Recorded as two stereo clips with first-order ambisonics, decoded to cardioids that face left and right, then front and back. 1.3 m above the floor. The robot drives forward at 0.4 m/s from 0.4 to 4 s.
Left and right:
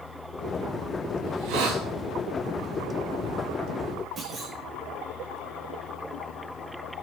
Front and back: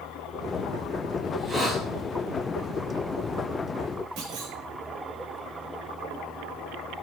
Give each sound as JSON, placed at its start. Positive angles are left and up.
{"t": 1.3, "sound": "a hiss", "azimuth_deg": -95, "distance_m": 7.0}
{"t": 4.2, "sound": "a clunk", "azimuth_deg": -160, "distance_m": 4.5}